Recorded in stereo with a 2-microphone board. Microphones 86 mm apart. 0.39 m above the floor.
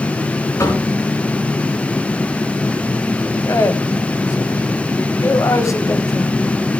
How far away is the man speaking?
About 1.9 m.